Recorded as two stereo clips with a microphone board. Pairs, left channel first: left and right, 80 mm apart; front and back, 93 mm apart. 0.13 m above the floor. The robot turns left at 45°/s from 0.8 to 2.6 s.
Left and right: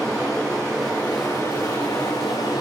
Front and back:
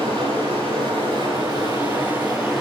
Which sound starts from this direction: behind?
Running water, at 0.0 s.